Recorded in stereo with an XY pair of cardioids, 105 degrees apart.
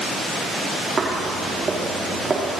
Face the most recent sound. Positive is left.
turn(degrees=-35)